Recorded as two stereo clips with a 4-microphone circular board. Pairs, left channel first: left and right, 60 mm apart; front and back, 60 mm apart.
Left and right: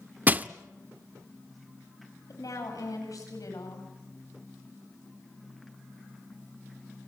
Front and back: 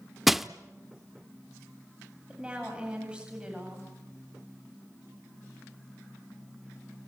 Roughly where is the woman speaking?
Left.